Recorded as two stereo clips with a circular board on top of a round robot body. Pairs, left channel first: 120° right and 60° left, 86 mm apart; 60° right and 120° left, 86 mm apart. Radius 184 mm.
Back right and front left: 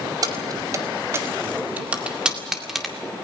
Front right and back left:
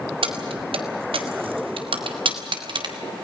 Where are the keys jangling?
105° left, 2 m; by 3.0 s 150° left, 2.5 m.